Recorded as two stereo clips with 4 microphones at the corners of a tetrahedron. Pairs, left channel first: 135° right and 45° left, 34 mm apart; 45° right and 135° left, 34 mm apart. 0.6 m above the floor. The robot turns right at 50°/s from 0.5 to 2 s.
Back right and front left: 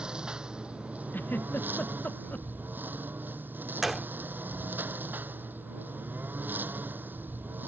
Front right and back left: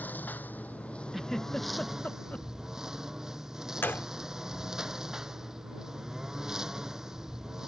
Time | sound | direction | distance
0.0 | a lawn mower | 15° right | ?
1.1 | a giggle | 140° right | ?
3.8 | a gunshot | 35° right | ?